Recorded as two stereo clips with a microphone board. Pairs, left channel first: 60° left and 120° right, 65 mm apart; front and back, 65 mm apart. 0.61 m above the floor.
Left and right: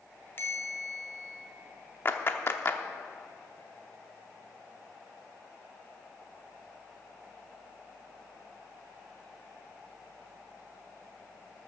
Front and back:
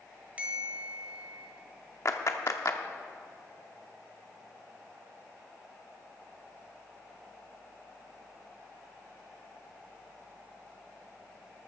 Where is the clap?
15° left, 0.8 m.